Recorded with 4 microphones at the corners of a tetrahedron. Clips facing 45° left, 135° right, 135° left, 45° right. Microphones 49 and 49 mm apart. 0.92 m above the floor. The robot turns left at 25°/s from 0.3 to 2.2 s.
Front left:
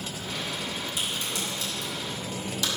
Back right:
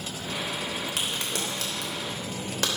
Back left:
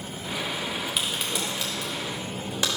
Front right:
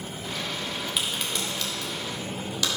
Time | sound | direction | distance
1.0 | a crack | 135° right | 3 m